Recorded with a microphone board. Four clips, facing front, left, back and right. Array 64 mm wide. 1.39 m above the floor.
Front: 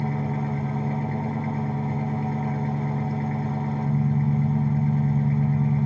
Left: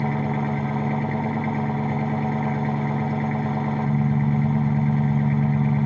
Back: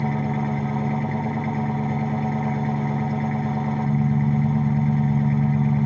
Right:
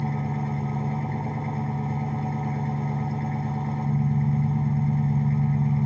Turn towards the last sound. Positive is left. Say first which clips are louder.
# left 5 dB, back 3 dB
turn(degrees=110)